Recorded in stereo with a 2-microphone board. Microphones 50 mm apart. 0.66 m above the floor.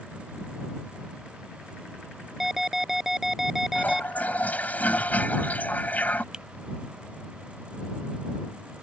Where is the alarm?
5° right (ahead or behind).